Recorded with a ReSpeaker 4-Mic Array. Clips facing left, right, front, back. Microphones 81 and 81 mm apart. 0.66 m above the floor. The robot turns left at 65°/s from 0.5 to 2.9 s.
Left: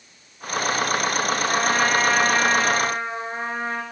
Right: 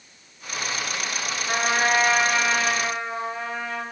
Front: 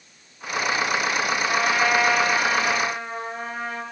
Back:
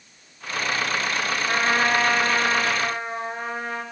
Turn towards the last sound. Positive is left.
turn(degrees=140)